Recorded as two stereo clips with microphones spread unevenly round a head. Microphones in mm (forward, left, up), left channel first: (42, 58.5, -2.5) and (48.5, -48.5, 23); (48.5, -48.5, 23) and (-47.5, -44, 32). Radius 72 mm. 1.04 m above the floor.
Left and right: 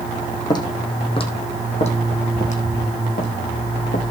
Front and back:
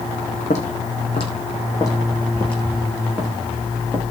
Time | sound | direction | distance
0.5 | footsteps | 40° left | 3.5 m